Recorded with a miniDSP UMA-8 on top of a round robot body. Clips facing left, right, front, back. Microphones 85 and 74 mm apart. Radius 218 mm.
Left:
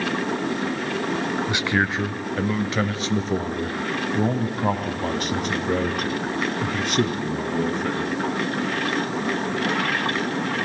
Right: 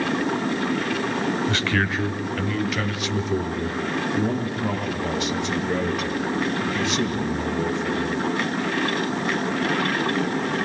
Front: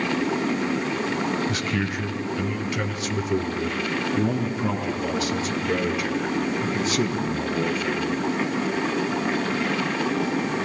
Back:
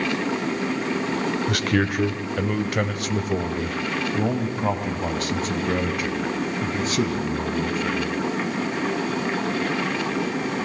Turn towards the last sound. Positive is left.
turn(degrees=130)